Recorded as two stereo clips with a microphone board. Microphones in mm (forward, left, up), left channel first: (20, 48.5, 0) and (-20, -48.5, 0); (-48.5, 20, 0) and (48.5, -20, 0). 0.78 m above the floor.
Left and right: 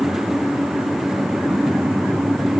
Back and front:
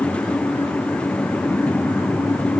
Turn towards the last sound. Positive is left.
No sound to turn to.